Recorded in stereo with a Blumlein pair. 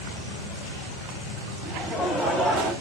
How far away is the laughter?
About 3 m.